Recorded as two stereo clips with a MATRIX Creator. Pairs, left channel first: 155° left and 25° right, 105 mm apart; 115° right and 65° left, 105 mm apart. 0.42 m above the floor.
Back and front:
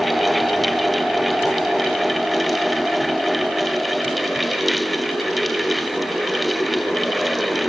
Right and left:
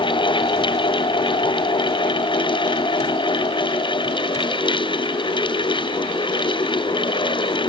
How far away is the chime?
No chime in this recording.